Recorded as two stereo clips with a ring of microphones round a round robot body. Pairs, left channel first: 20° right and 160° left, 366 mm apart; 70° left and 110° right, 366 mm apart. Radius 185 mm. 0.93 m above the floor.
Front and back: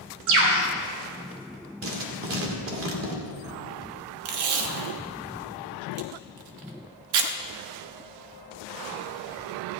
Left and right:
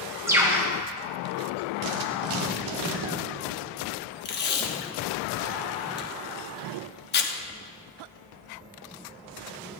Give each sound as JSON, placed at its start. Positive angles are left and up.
{"t": 0.3, "sound": "a bird", "azimuth_deg": 165, "distance_m": 2.5}
{"t": 1.8, "sound": "writing", "azimuth_deg": -145, "distance_m": 1.7}
{"t": 4.2, "sound": "tape being pulled", "azimuth_deg": 130, "distance_m": 1.1}